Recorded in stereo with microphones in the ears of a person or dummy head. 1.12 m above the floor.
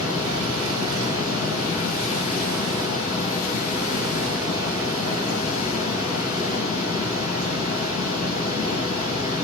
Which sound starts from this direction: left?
A fan, at 0.0 s.